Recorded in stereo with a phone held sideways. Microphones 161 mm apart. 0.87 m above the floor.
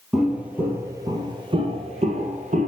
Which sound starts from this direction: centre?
Footsteps, at 0.1 s.